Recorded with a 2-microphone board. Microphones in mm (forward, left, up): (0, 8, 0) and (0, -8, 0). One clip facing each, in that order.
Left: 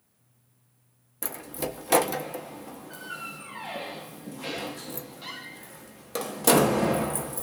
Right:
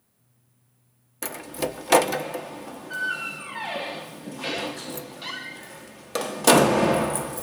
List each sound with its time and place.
1.2 s a door slam: 25° right (ahead or behind), 0.6 m